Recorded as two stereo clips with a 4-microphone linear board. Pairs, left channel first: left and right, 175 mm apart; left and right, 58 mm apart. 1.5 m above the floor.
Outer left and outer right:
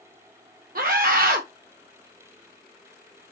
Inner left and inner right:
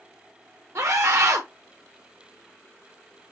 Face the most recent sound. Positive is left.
turn(degrees=-55)  # may be behind; listen again after turning